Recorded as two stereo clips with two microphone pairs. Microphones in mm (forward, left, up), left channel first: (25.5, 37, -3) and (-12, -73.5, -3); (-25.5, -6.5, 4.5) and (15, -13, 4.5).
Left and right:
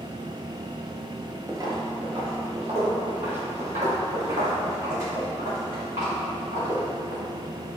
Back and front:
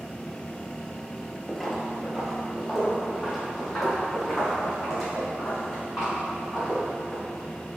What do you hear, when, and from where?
1.5 s footsteps: 105° right, 0.6 m; by 7.2 s 95° right, 3.5 m